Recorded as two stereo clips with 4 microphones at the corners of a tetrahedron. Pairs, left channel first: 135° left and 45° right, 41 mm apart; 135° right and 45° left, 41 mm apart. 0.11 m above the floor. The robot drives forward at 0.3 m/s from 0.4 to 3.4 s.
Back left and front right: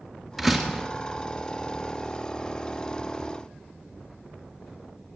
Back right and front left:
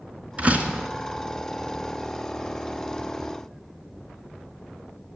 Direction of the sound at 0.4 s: 40° left.